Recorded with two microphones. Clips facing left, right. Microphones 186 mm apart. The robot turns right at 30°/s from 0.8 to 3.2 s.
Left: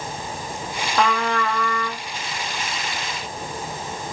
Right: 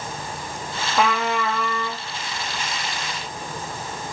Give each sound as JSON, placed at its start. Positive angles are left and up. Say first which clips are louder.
{"t": 1.0, "sound": "a trumpet", "louder": "even", "azimuth_deg": -175, "distance_m": 0.7}